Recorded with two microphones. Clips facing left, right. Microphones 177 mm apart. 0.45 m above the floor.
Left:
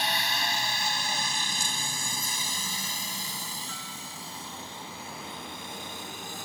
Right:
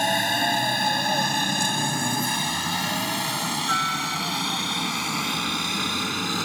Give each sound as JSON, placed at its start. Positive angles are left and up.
{"t": 0.0, "sound": "a helicopter", "side_deg": -45}